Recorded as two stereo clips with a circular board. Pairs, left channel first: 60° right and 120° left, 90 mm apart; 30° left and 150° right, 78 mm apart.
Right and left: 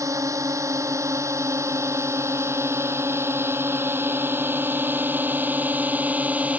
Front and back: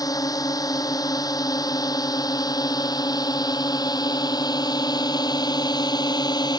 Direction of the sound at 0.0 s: 65° left.